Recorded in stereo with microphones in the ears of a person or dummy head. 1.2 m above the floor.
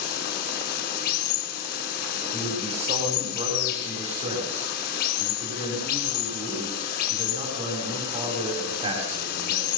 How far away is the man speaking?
About 5.5 m.